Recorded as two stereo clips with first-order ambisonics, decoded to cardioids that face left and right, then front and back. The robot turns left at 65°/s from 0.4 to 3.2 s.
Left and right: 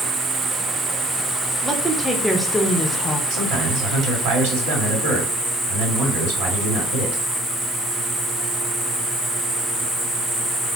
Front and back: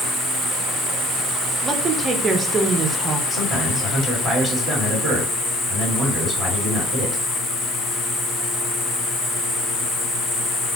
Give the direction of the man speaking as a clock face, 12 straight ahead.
3 o'clock.